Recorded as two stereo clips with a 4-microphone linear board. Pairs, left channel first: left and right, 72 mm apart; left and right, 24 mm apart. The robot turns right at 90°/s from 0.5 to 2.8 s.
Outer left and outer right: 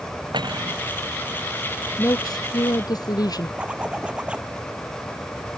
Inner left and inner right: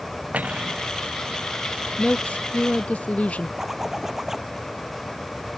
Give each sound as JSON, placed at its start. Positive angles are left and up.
{"t": 0.3, "sound": "cutlery clinking", "side_deg": -80}
{"t": 2.0, "sound": "a woman speaking", "azimuth_deg": 40}
{"t": 3.6, "sound": "a zipper", "side_deg": -15}